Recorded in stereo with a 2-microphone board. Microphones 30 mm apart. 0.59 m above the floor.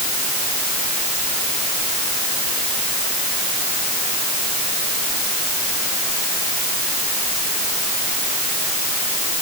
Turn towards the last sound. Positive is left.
No sound to turn to.